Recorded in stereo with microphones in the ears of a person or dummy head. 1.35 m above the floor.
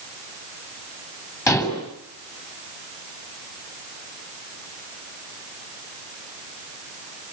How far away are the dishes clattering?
About 6.5 m.